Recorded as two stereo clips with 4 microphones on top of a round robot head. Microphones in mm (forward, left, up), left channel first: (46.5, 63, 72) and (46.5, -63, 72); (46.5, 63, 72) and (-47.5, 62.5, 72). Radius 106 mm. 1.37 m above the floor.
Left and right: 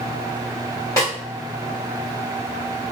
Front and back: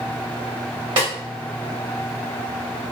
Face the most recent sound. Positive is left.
turn(degrees=160)